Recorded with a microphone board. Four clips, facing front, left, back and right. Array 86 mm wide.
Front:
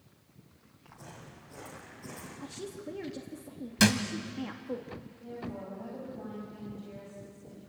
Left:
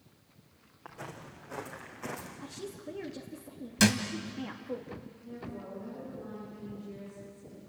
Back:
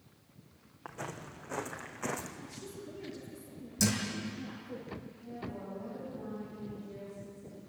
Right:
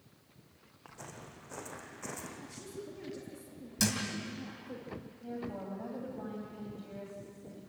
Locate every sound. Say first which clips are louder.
0.8 s footsteps: left 4 dB, back 7 dB; 160° left, 4 m; by 2.3 s 170° left, 3.5 m
2.4 s a woman speaking: left 3 dB, front 4 dB; 30° left, 2.5 m
3.8 s a thud: left 8 dB, front 7 dB; 35° left, 2 m
5.2 s a woman speaking: right 4 dB, front 4 dB; 70° right, 5.5 m